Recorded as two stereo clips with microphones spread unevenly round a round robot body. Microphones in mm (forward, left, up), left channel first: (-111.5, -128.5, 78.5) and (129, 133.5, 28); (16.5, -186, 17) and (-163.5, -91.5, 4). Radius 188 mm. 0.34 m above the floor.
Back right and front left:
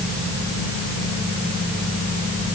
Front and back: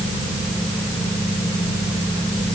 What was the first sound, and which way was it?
Only background noise.